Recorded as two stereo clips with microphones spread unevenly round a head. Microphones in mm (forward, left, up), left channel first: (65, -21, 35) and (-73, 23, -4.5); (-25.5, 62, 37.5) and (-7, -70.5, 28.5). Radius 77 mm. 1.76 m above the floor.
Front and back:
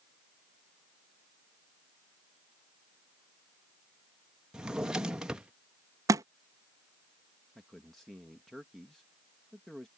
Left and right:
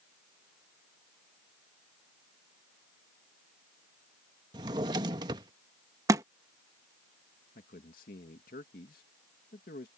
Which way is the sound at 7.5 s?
70° left.